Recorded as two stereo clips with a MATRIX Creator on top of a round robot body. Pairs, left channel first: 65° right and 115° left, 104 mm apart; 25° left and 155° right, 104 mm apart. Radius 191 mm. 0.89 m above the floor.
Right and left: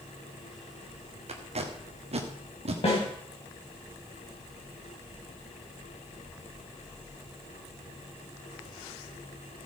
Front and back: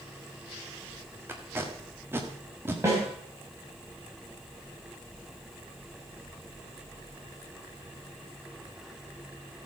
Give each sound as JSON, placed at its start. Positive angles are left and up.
{"t": 1.3, "sound": "tape being pulled", "azimuth_deg": 135, "distance_m": 1.4}
{"t": 2.8, "sound": "a snare drum", "azimuth_deg": -95, "distance_m": 4.5}